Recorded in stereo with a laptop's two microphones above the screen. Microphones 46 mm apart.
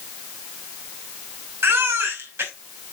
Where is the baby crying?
65° right (ahead or behind), 2.5 m.